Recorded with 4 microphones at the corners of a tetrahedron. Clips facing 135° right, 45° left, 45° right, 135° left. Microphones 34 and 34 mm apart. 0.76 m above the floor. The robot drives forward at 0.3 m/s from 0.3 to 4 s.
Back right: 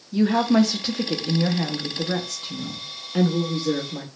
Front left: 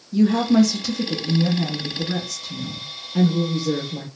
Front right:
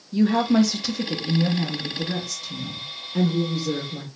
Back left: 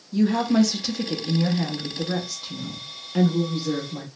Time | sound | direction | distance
0.1 | a woman speaking | 100° right | 0.6 m